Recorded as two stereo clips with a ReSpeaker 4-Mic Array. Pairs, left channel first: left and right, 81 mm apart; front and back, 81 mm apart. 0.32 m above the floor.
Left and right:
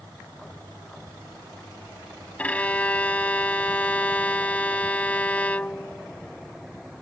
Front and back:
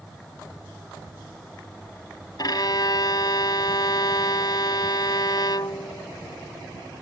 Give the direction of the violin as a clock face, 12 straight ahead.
11 o'clock.